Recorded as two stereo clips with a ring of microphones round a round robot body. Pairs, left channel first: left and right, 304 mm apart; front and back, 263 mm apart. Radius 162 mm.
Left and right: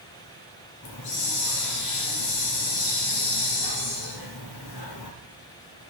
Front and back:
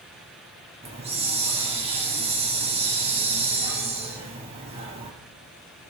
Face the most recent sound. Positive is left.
turn(degrees=115)